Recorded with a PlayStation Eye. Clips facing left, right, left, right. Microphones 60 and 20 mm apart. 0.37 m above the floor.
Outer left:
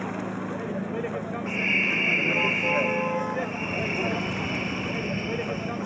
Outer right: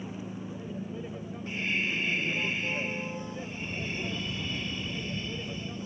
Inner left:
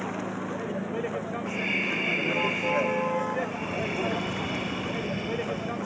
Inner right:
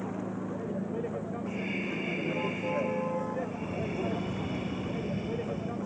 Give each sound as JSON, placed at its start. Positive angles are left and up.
{"t": 0.0, "sound": "a vehicle", "side_deg": 65}
{"t": 1.5, "sound": "breathing", "side_deg": 40}